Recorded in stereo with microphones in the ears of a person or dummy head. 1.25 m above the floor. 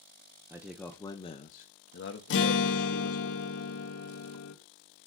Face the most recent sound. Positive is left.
turn(degrees=70)  # may be behind; listen again after turning